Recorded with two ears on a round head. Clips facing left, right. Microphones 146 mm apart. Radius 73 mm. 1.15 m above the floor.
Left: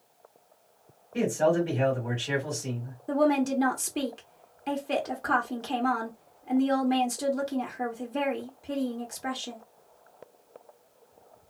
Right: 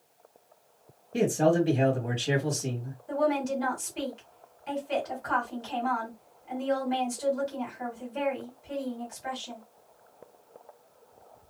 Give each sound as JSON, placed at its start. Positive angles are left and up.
{"t": 1.1, "sound": "a man speaking", "side_deg": -40, "distance_m": 1.3}
{"t": 3.1, "sound": "a woman speaking", "side_deg": 65, "distance_m": 0.9}